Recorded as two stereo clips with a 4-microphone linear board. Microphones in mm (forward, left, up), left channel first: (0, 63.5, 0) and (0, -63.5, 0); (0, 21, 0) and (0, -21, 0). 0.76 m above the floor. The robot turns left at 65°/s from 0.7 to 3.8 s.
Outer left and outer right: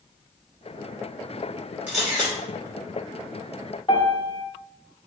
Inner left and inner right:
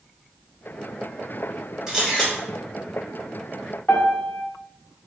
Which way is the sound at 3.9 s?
45° left (ahead or behind).